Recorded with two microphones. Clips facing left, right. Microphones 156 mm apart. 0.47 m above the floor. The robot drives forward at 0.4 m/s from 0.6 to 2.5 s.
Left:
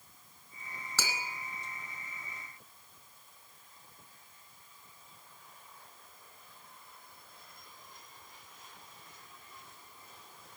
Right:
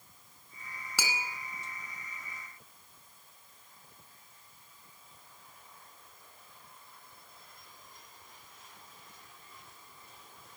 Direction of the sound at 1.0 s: 10° right (ahead or behind).